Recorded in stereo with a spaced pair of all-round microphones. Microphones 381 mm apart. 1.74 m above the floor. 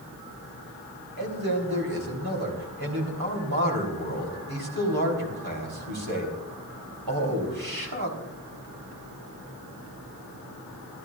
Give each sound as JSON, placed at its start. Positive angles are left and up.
{"t": 1.2, "sound": "a man speaking", "side_deg": -70, "distance_m": 3.5}